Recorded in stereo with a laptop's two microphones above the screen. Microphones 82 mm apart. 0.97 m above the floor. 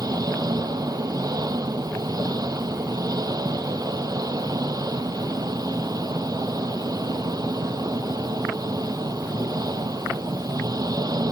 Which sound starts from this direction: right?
An engine running, at 0.0 s.